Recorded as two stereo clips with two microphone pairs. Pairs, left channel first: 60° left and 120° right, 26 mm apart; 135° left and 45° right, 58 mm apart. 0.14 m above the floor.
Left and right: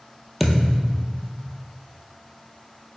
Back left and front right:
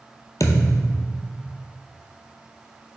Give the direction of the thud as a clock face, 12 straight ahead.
7 o'clock.